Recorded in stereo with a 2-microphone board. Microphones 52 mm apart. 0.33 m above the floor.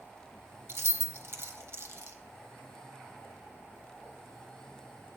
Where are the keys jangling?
55° right (ahead or behind), 1.1 m.